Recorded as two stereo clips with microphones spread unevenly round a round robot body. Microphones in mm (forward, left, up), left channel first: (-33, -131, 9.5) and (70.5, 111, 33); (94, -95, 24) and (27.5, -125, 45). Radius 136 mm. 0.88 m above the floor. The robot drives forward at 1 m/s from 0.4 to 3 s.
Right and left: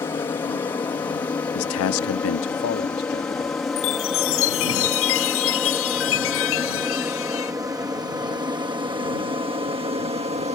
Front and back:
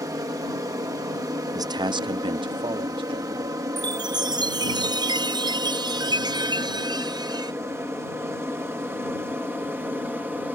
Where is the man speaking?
110° right; by 3.6 s 165° right.